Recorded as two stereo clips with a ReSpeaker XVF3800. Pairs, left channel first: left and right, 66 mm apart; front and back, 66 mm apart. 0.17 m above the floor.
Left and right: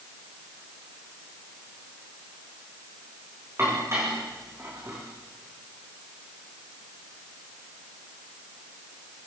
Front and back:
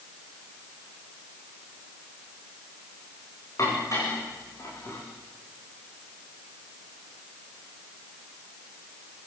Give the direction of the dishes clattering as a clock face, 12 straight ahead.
1 o'clock.